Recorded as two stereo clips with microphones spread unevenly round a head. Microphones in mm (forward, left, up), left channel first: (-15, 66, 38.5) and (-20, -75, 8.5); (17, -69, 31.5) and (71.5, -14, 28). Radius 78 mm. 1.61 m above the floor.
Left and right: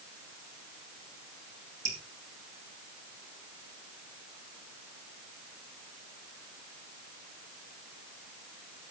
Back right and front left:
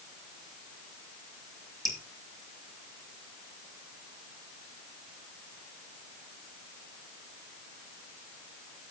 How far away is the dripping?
About 4 m.